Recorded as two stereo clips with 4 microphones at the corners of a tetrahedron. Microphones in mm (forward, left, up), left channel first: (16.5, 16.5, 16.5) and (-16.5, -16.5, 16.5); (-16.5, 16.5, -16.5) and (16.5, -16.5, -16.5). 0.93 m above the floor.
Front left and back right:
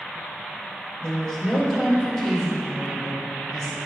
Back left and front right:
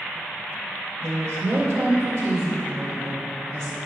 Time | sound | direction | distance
1.0 | a woman speaking | 30° right | 2 m